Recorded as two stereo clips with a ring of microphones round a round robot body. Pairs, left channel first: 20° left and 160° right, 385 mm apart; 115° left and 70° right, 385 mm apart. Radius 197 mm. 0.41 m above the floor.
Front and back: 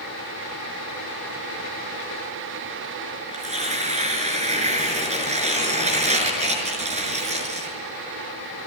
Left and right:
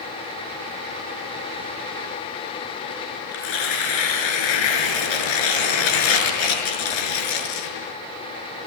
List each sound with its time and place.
3.3 s tearing paper: 130° left, 6 m